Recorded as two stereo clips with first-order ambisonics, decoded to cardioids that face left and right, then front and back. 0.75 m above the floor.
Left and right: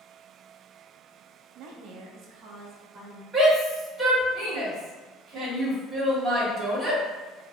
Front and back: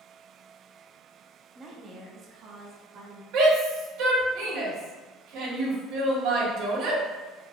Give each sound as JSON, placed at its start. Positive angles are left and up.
{"t": 1.6, "sound": "a woman speaking", "azimuth_deg": -110, "distance_m": 0.5}
{"t": 3.3, "sound": "a shout", "azimuth_deg": -160, "distance_m": 1.8}